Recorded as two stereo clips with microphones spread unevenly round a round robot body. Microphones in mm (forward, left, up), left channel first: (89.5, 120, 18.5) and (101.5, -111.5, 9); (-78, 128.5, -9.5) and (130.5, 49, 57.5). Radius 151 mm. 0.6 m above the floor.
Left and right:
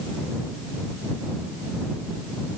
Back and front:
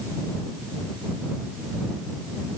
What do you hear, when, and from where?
Only background noise.